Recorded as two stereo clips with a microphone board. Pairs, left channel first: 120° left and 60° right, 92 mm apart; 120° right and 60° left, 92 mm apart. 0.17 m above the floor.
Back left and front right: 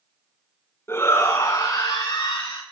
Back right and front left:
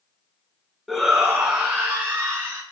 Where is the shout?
150° left, 1.3 m; by 2.6 s 130° left, 1.9 m.